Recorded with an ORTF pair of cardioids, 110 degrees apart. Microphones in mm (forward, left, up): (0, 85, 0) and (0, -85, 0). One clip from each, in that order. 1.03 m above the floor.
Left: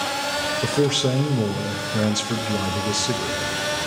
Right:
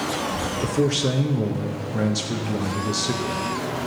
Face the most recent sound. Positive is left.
turn(degrees=15)